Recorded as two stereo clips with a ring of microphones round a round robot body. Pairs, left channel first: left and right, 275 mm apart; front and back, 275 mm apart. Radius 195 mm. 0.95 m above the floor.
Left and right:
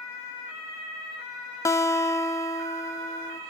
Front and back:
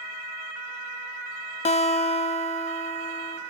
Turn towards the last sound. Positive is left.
turn(degrees=25)